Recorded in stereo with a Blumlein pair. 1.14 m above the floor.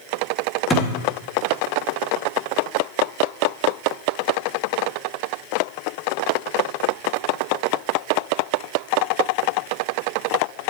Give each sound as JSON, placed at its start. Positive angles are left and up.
{"t": 0.7, "sound": "a thud", "azimuth_deg": 10, "distance_m": 1.3}